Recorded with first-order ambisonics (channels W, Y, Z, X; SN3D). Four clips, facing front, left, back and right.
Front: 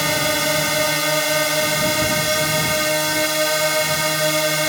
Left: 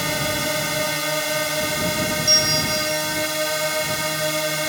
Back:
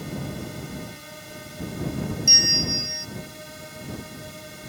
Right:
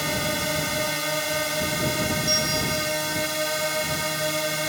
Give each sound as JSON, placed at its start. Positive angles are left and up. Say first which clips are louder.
{"t": 0.0, "sound": "a drone", "louder": "left 3 dB, front 15 dB", "azimuth_deg": 10}
{"t": 2.3, "sound": "a bell", "louder": "left 8 dB, back 1 dB", "azimuth_deg": 155}